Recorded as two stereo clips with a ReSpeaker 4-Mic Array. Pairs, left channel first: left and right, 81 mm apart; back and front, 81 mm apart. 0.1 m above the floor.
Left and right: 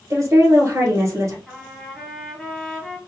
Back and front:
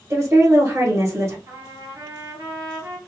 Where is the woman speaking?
50° right, 1.7 m.